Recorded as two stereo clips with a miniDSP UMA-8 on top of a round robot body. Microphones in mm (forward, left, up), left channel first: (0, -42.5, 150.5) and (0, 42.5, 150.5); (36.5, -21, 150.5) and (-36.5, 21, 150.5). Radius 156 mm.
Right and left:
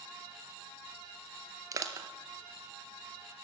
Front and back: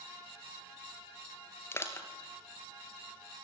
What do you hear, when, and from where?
1.7 s crushing: 35° left, 1.5 m